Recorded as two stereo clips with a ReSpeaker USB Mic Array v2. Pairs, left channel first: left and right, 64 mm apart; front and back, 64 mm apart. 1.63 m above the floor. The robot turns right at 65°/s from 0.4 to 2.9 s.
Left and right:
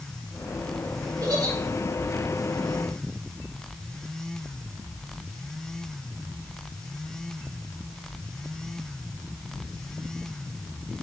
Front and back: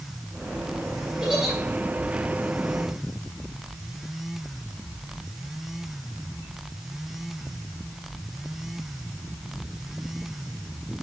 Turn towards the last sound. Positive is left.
turn(degrees=10)